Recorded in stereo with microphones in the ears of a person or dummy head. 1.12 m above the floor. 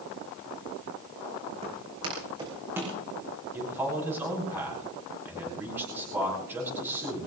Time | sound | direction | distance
1.6 | footsteps | 25° right (ahead or behind) | 4.5 m
3.5 | a man speaking | 15° right (ahead or behind) | 7 m